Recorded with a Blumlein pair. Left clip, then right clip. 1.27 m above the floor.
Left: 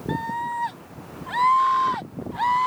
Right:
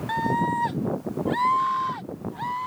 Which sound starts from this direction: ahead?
A scream, at 0.1 s.